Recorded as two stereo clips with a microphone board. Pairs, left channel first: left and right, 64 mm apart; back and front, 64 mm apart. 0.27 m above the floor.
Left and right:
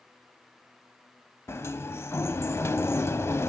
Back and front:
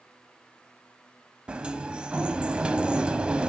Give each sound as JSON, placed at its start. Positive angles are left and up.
{"t": 1.5, "sound": "a sliding door", "azimuth_deg": 65, "distance_m": 1.2}